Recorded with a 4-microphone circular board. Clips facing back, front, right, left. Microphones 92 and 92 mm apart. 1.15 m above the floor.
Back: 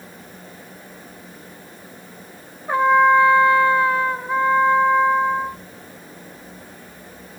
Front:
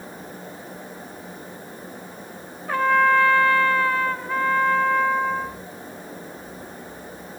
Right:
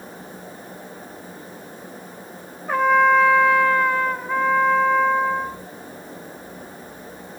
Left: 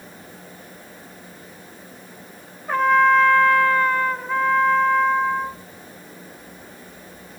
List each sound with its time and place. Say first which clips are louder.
2.7 s a trumpet: back 4 dB, even; 170° right, 0.6 m